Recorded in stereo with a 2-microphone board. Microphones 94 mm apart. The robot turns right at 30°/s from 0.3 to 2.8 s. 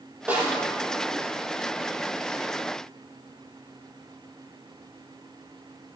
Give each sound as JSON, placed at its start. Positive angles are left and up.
{"t": 0.3, "sound": "a snare drum", "side_deg": -15, "distance_m": 6.0}